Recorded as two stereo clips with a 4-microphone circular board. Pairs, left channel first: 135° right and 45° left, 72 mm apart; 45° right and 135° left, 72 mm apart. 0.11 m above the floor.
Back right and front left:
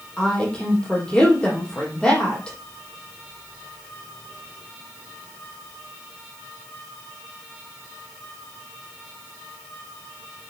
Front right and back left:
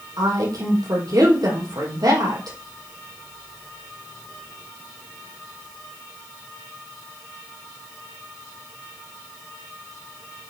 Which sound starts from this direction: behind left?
A woman speaking, at 0.2 s.